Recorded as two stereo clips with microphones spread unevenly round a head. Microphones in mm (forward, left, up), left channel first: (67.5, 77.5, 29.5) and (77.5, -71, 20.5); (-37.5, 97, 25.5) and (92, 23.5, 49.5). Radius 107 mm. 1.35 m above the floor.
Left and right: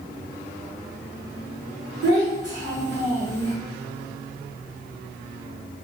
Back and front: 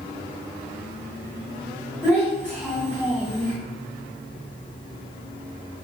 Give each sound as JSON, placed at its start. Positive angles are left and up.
{"t": 2.0, "sound": "a child speaking", "azimuth_deg": -110, "distance_m": 1.5}